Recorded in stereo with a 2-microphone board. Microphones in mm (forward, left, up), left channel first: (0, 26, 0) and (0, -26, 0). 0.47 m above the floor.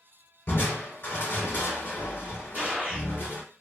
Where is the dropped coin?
I don't hear a dropped coin.